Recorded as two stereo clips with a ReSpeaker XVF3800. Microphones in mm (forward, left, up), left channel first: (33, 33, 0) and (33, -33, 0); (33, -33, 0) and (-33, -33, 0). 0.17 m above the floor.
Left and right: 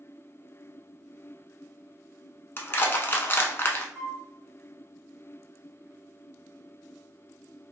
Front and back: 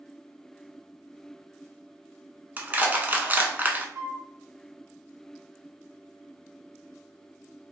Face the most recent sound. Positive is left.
turn(degrees=160)